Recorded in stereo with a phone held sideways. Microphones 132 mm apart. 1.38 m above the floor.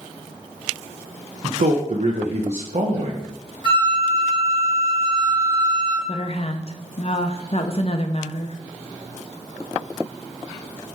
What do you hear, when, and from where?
1.4 s a man speaking: 55° right (ahead or behind), 1.0 m
3.6 s a flute: 35° right (ahead or behind), 1.8 m
6.1 s a woman speaking: 50° left (ahead or behind), 0.8 m